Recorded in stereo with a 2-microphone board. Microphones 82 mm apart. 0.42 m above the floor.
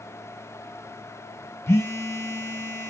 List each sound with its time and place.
1.7 s a phone buzzing: 35° left (ahead or behind), 0.5 m